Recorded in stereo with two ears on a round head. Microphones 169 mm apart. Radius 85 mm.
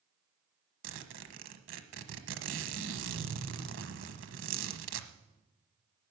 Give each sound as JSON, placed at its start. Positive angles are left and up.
{"t": 0.8, "sound": "a zipper", "side_deg": -70, "distance_m": 1.2}